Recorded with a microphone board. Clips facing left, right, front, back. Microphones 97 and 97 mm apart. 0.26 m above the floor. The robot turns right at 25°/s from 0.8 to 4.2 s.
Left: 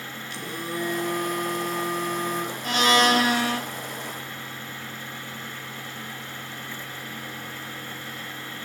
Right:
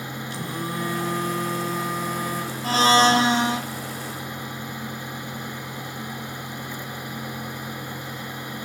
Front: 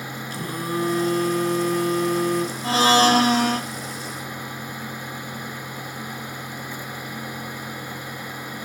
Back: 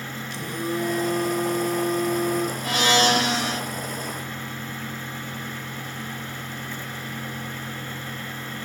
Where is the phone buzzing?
45° right, 2.5 m; by 2.5 s straight ahead, 2.5 m.